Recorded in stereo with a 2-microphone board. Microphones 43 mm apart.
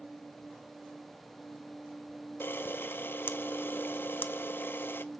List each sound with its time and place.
2.4 s a camera shutter: 60° left (ahead or behind), 0.6 m